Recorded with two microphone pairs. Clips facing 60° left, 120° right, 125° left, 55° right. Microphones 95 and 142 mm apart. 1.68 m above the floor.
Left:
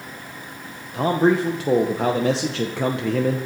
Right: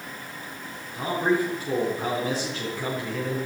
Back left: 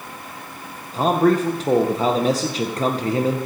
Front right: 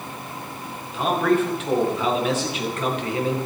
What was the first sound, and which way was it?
A man speaking, 70° left.